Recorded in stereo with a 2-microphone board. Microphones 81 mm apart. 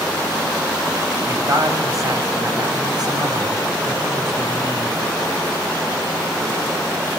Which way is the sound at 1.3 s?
40° right (ahead or behind).